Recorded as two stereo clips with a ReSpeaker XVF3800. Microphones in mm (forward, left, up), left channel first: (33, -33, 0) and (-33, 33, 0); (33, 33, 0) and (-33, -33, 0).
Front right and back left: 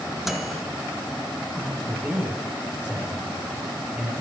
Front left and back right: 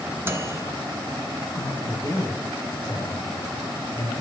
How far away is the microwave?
About 0.8 m.